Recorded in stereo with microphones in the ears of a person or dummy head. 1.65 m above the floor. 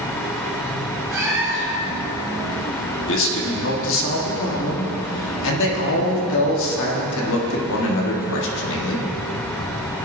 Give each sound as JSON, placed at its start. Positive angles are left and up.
{"t": 1.1, "sound": "a cat meowing", "side_deg": -10, "distance_m": 1.1}
{"t": 3.1, "sound": "a man speaking", "side_deg": 70, "distance_m": 1.5}